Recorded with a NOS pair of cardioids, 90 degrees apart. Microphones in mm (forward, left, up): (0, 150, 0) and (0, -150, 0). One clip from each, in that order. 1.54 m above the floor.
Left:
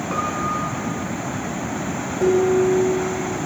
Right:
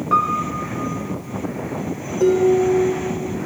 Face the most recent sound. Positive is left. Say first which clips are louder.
# right 2 dB
turn(degrees=-50)